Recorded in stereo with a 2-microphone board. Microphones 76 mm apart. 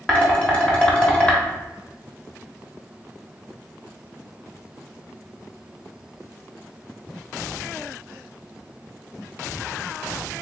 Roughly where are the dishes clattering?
Centre.